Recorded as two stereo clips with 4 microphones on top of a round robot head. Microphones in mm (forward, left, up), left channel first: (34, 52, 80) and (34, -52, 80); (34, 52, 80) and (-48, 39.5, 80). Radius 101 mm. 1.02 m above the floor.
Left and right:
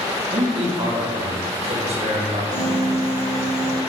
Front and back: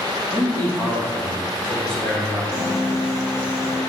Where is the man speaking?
65° right, 2 m; by 2.4 s 75° right, 3.5 m.